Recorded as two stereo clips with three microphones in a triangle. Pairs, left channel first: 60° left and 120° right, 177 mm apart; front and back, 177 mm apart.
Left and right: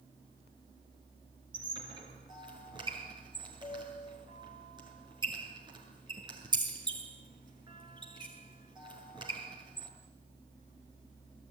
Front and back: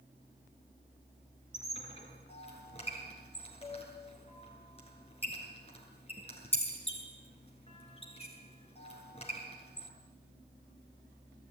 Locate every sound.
1.5 s a squeak: 55° right, 7.5 m